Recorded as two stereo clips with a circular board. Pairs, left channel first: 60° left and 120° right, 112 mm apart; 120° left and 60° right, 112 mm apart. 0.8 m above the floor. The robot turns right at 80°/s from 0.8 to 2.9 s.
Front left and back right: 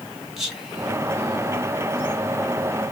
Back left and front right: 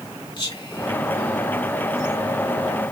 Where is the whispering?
155° left, 1.6 m; by 2.2 s 100° right, 1.6 m.